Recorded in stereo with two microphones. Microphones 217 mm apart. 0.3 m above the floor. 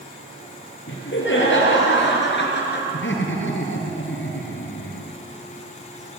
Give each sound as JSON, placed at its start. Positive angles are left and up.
{"t": 0.9, "sound": "laughter", "side_deg": 60, "distance_m": 8.0}
{"t": 2.9, "sound": "laughter", "side_deg": 60, "distance_m": 4.5}